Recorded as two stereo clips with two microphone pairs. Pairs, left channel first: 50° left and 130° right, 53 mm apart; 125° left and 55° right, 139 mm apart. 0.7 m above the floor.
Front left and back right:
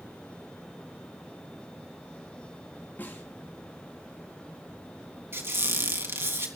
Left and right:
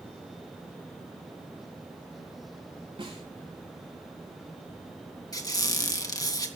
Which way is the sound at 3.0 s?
5° right.